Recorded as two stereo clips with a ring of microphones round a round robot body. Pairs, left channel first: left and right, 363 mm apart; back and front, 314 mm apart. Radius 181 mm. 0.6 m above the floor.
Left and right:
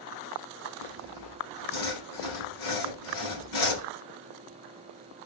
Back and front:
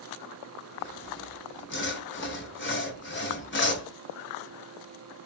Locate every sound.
0.8 s sawing: 125° left, 2.5 m